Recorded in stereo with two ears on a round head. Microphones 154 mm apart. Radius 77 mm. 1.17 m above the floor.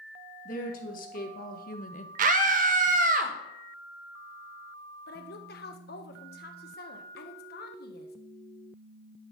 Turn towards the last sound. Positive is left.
turn(degrees=65)  # may be behind; listen again after turning